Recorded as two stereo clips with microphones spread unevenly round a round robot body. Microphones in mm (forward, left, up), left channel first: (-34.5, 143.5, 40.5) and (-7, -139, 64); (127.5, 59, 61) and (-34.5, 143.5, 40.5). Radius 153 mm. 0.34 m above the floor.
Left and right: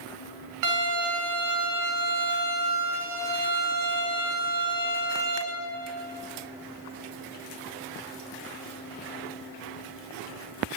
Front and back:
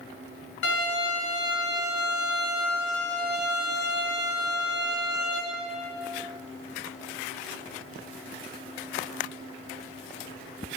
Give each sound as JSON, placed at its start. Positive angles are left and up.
{"t": 0.6, "sound": "a violin", "azimuth_deg": -60, "distance_m": 4.0}